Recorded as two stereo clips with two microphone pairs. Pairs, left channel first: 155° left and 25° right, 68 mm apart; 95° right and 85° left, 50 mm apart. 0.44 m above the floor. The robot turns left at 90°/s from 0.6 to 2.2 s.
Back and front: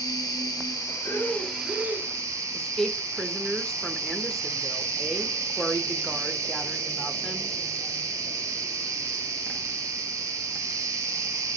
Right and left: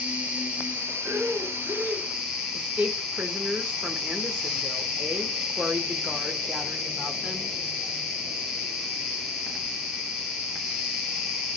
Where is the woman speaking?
65° left, 1.1 m.